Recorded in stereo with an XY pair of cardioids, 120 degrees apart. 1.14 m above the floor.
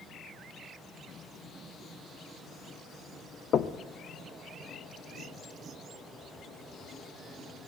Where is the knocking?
50° left, 0.8 m.